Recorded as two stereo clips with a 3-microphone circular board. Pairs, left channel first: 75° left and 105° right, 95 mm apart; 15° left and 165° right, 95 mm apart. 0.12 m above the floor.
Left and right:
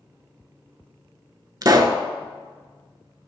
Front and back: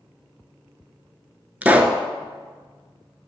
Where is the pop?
100° right, 0.5 m.